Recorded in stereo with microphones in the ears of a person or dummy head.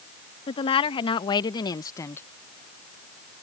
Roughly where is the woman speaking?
Left.